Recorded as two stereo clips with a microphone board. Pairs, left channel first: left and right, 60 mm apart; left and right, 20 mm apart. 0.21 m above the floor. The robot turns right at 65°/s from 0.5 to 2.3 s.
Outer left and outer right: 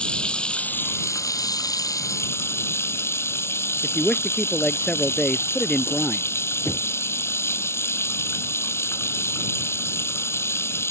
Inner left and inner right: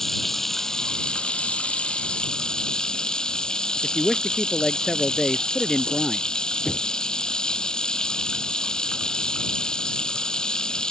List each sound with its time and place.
0.0 s running water: 15° left; by 10.9 s 135° left
3.8 s a man speaking: 20° left (ahead or behind)
6.7 s knocking: 60° left (ahead or behind)